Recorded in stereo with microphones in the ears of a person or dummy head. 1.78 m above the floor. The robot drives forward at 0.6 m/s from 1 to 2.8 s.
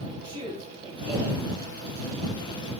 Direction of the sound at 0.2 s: 35° right (ahead or behind).